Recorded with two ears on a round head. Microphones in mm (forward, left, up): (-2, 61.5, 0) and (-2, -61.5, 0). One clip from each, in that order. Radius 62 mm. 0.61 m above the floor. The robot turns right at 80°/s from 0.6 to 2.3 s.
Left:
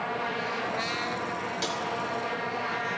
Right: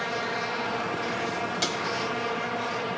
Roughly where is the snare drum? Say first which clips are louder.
Right 3 dB; centre.